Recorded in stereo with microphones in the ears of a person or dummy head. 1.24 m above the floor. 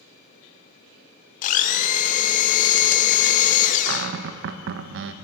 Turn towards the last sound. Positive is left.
turn(degrees=-65)  # may be behind; listen again after turning